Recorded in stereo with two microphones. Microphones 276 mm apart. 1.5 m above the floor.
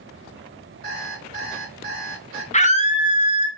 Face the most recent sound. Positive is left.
turn(degrees=25)  # may be behind; listen again after turning